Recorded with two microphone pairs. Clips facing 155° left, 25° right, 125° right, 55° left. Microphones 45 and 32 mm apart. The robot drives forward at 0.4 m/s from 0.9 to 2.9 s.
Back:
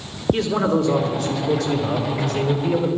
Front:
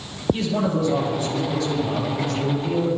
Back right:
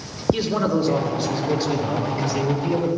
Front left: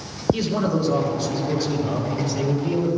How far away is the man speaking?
About 4.5 m.